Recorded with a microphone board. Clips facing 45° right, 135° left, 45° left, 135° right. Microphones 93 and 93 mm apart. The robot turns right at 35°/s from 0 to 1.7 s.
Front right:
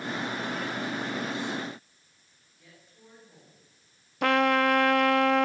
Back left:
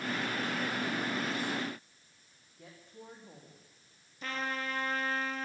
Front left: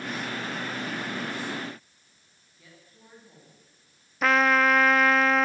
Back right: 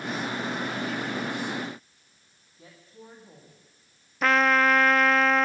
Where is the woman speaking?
165° left, 8.5 m.